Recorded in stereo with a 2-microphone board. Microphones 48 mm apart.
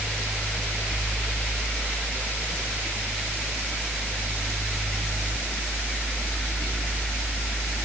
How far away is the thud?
I don't hear a thud.